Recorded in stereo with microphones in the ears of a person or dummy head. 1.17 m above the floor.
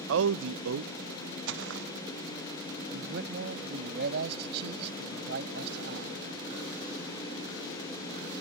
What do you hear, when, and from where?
0.1 s a man speaking: 75° right (ahead or behind)
1.5 s footsteps: 65° right (ahead or behind)
2.9 s a man speaking: 60° right (ahead or behind)